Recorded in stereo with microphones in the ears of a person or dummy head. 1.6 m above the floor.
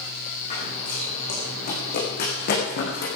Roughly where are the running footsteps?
Left.